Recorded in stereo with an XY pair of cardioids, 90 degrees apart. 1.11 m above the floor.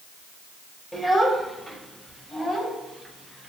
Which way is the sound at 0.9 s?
15° right.